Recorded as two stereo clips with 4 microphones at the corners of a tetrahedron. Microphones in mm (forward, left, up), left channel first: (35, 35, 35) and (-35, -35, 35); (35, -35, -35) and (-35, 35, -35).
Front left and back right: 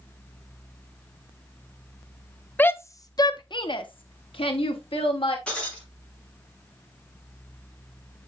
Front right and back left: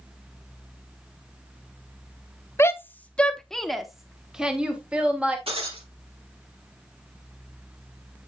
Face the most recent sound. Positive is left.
turn(degrees=125)